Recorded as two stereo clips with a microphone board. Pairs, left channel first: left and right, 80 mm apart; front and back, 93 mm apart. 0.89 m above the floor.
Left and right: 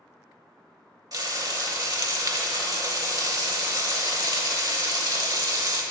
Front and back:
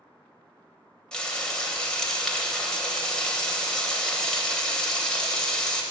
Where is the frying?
80° right, 0.9 m.